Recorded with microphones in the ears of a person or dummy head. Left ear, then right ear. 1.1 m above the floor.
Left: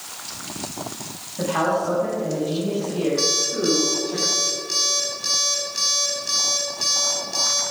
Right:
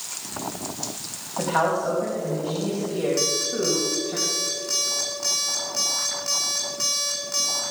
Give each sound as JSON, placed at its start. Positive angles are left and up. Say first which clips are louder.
{"t": 1.4, "sound": "a man speaking", "louder": "left 1 dB", "side_deg": -80, "distance_m": 5.5}
{"t": 3.2, "sound": "an alarm clock", "louder": "left 3 dB", "side_deg": -60, "distance_m": 5.0}